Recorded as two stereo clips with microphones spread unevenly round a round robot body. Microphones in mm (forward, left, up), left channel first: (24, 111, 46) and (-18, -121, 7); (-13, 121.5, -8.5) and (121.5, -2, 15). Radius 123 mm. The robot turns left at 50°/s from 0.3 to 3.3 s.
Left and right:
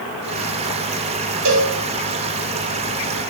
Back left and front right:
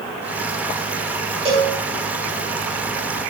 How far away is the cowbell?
About 3 m.